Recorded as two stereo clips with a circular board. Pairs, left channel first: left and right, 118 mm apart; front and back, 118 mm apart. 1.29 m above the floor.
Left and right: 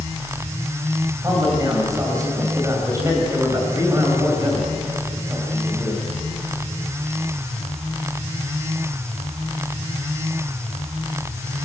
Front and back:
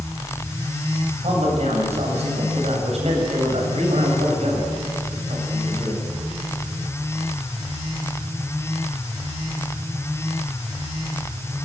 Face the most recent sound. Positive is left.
turn(degrees=-150)